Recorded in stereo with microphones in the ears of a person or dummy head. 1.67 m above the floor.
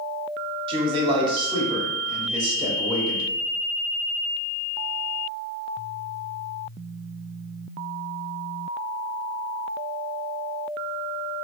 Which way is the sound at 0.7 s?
30° right (ahead or behind).